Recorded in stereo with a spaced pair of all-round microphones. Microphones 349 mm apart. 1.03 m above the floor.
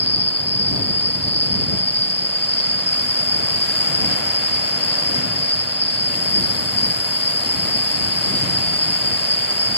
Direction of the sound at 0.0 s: 60° left (ahead or behind).